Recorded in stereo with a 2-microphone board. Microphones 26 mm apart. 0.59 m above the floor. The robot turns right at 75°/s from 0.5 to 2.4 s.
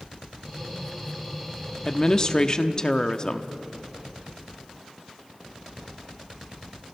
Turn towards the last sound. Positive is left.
turn(degrees=95)